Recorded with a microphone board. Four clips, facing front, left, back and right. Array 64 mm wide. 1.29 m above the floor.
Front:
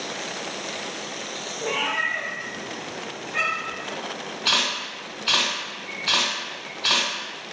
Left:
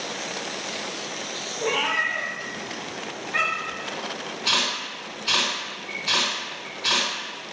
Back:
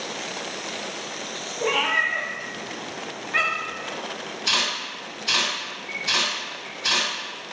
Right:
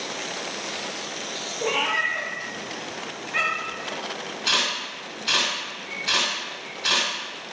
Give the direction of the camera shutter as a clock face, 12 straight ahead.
12 o'clock.